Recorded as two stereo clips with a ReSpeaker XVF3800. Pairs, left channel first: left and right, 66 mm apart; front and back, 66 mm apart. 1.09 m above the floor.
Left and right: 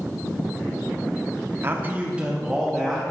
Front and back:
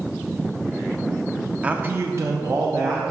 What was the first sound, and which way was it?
A man speaking, 115° right.